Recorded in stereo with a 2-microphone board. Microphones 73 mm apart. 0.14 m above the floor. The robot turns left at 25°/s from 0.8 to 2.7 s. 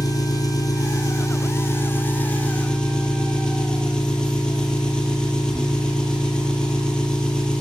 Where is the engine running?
60° left, 3 m; by 7.6 s 10° left, 3 m.